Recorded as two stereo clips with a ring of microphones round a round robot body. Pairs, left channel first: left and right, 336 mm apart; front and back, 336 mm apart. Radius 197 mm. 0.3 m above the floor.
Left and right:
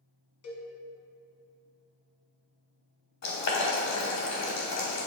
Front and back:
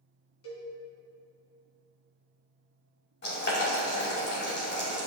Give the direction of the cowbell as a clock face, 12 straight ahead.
10 o'clock.